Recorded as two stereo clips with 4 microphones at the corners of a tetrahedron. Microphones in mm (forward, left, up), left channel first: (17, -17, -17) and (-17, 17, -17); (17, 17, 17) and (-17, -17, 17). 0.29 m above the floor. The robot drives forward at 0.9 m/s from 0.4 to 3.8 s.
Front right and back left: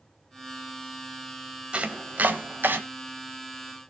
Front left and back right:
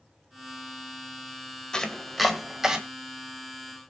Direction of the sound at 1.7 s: 100° left.